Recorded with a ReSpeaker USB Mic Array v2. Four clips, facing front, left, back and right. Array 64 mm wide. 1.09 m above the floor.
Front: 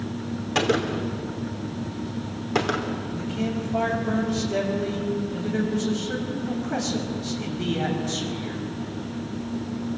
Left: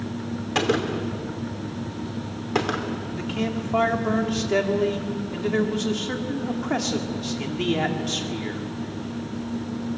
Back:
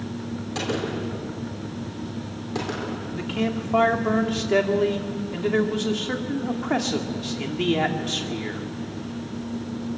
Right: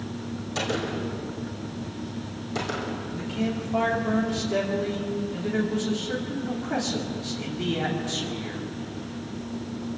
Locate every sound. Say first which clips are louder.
0.6 s a gunshot: left 6 dB, front 5 dB; 55° left, 3 m
3.1 s a man speaking: left 1 dB, back 4 dB; 155° left, 3 m